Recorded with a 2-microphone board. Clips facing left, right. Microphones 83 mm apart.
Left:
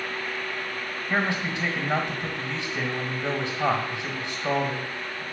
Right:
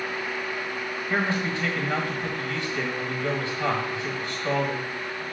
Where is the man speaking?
20° left (ahead or behind), 1.6 m.